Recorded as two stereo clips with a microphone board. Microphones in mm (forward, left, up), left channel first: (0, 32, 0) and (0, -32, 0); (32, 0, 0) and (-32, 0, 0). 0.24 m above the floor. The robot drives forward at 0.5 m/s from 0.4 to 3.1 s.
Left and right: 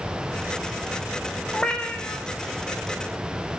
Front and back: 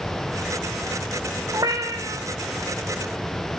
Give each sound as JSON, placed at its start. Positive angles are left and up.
{"t": 1.5, "sound": "a cat meowing", "azimuth_deg": 165, "distance_m": 4.5}